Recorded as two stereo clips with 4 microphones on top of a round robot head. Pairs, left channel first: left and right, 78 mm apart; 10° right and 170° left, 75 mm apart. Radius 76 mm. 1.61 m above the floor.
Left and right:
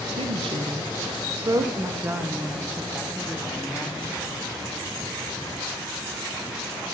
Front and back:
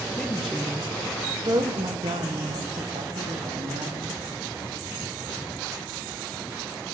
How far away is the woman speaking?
About 1.5 m.